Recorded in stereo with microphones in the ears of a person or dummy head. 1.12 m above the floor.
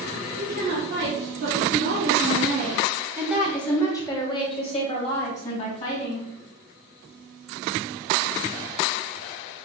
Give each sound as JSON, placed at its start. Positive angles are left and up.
{"t": 0.4, "sound": "a woman speaking", "side_deg": -55, "distance_m": 1.6}